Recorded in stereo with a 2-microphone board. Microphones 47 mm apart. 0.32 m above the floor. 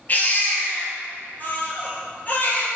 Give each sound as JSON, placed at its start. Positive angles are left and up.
{"t": 0.1, "sound": "a baby crying", "side_deg": 35, "distance_m": 3.0}